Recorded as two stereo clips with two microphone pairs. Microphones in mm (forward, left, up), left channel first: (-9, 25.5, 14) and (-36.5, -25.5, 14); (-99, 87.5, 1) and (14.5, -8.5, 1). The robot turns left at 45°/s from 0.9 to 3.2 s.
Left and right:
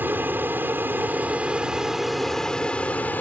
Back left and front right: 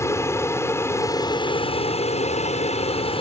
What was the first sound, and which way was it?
An aircraft, 155° right.